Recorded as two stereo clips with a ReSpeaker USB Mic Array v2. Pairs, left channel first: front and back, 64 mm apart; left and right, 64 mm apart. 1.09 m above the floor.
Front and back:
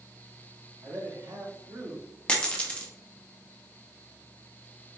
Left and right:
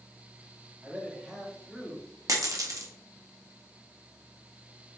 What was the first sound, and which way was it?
A man speaking, 165° right.